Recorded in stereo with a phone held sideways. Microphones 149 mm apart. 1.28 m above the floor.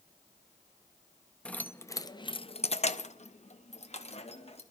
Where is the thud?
I don't hear a thud.